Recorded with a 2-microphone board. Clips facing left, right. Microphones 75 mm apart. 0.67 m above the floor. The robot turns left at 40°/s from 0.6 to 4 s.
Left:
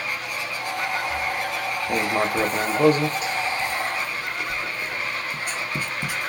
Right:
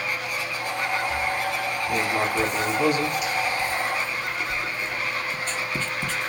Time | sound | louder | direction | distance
1.9 | writing | left 2 dB | 40° left (ahead or behind) | 0.6 m